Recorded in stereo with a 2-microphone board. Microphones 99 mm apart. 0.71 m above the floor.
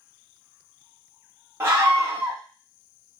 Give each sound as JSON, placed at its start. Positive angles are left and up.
{"t": 1.6, "sound": "a scream", "side_deg": -30, "distance_m": 1.3}